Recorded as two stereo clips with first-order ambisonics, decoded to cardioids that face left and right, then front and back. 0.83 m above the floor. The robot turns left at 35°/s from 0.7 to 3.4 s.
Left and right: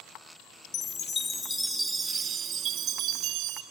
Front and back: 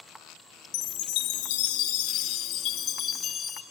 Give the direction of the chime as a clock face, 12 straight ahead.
11 o'clock.